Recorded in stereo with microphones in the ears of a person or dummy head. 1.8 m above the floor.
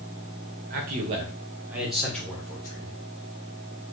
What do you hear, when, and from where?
0.7 s a man speaking: 40° right (ahead or behind), 0.9 m; by 3.0 s 25° left (ahead or behind), 1.3 m